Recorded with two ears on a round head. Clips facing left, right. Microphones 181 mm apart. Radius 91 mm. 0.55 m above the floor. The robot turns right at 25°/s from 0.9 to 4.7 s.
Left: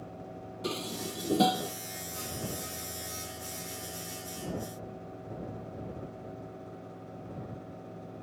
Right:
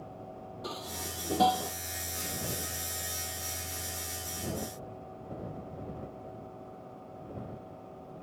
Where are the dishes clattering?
35° left (ahead or behind); by 1.7 s 15° left (ahead or behind).